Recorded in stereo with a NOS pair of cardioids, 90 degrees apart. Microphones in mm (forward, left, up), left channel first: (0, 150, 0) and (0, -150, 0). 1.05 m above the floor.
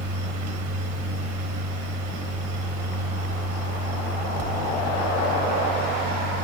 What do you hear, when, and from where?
0.0 s a fan: 70° right, 1.0 m